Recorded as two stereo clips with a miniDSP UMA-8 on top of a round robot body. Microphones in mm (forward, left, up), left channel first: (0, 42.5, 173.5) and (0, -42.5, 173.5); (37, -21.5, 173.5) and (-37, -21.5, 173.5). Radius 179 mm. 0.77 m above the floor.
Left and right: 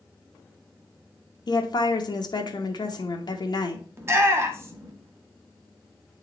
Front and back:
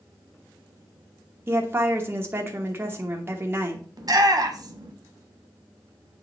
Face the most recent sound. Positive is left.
turn(degrees=-150)